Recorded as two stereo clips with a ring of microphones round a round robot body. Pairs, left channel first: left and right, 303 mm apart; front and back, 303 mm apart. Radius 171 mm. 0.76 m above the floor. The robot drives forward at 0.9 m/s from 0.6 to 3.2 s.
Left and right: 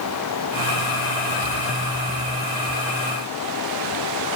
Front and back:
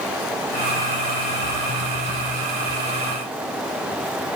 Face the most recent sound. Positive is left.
No sound to turn to.